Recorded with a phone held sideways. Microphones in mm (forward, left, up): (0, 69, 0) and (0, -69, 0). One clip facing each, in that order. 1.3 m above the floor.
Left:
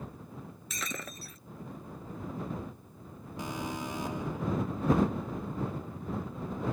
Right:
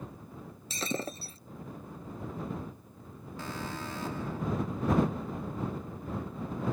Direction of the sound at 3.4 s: 15° left (ahead or behind).